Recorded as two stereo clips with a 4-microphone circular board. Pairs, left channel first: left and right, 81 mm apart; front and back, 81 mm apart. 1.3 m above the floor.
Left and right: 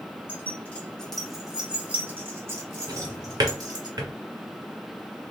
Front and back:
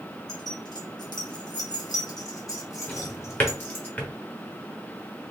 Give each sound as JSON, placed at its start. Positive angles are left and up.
{"t": 0.3, "sound": "keys jangling", "azimuth_deg": 30, "distance_m": 1.2}
{"t": 2.9, "sound": "a drawer", "azimuth_deg": -65, "distance_m": 1.0}